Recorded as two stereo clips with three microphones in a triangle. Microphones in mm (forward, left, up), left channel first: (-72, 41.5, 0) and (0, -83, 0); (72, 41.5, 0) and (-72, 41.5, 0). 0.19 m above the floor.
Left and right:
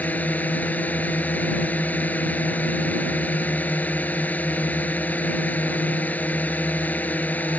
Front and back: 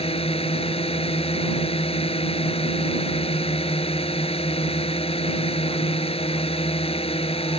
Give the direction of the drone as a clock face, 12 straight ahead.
11 o'clock.